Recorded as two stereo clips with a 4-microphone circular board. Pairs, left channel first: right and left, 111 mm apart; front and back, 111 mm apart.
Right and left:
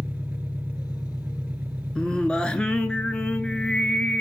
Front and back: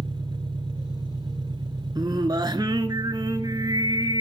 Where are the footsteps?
I don't hear footsteps.